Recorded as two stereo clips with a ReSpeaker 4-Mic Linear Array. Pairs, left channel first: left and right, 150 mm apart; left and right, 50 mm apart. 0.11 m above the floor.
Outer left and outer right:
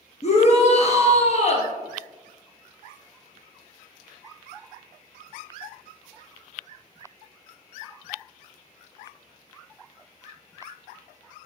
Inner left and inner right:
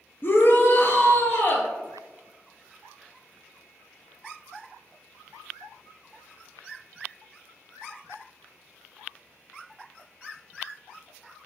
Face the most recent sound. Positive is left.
turn(degrees=45)  # may be behind; listen again after turning